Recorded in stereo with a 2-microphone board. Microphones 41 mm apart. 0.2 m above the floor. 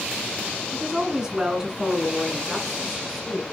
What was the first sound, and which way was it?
A woman speaking, 25° right (ahead or behind).